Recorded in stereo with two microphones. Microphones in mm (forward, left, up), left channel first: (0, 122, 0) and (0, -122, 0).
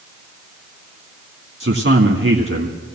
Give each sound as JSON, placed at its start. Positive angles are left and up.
{"t": 1.6, "sound": "a man speaking", "side_deg": -55, "distance_m": 1.9}